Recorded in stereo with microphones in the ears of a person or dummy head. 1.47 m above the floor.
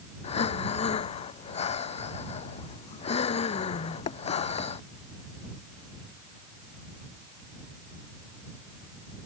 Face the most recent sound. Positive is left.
turn(degrees=40)  # may be behind; listen again after turning